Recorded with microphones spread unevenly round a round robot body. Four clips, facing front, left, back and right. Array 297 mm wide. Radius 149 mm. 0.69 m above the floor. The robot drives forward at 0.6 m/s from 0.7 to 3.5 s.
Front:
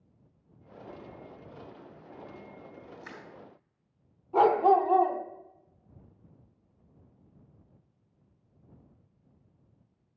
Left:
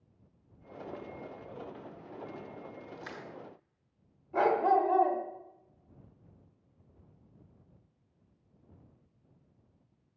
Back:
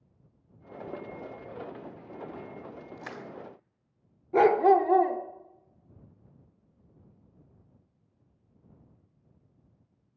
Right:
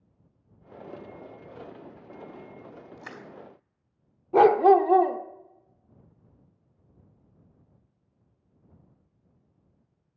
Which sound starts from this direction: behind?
Crushing, at 3.0 s.